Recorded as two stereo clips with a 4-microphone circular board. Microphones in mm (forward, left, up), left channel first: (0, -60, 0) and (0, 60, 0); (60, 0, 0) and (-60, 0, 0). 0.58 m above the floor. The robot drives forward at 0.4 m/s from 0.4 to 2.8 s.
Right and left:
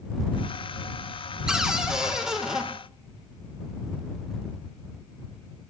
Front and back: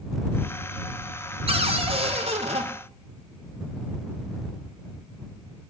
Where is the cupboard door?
175° left, 1.7 m.